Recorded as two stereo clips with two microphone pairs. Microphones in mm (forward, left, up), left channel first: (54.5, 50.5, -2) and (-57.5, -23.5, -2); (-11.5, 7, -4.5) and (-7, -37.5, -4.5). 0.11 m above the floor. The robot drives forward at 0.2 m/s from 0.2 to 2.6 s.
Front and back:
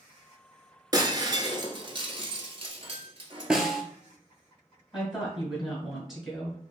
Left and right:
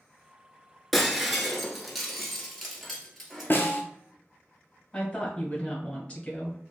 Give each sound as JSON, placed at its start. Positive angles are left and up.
{"t": 0.9, "sound": "breaking glass", "azimuth_deg": -170, "distance_m": 0.5}
{"t": 3.5, "sound": "a snare drum", "azimuth_deg": 130, "distance_m": 0.6}
{"t": 4.9, "sound": "a woman speaking", "azimuth_deg": 130, "distance_m": 1.6}